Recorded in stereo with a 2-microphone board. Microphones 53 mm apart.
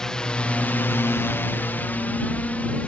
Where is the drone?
10° left (ahead or behind); by 2.9 s 25° left (ahead or behind).